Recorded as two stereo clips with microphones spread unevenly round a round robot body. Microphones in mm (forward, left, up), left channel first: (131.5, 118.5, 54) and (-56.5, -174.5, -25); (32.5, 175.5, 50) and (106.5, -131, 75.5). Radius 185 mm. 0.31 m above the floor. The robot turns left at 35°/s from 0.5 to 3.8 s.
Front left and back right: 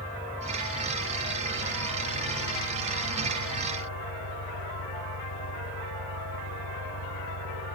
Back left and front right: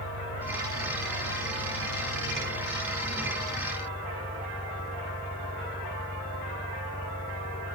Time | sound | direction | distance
0.0 | an engine running | 145° left | ?